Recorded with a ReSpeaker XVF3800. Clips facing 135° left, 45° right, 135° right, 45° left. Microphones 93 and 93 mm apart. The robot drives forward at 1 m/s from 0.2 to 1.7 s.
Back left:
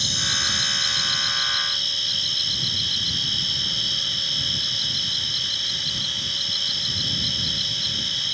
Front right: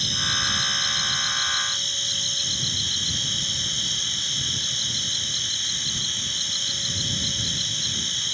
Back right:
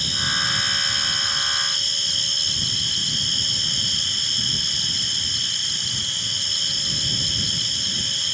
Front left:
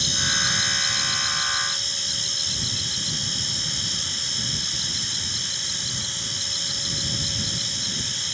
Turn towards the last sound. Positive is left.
turn(degrees=-105)